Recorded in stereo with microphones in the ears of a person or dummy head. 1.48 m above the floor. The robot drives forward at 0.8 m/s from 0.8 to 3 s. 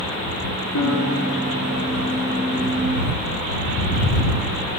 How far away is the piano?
About 5 m.